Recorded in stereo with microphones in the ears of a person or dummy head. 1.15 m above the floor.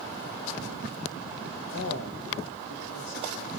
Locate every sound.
1.7 s a man speaking: 65° left (ahead or behind), 1.3 m